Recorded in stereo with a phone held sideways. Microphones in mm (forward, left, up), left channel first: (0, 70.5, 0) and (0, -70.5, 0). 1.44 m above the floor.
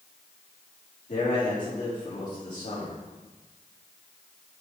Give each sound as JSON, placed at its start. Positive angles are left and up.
{"t": 1.1, "sound": "a man speaking", "side_deg": 65, "distance_m": 4.0}